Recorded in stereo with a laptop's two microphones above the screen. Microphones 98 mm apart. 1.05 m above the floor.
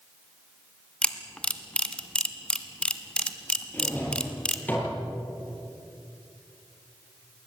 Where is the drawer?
20° left (ahead or behind), 8 m.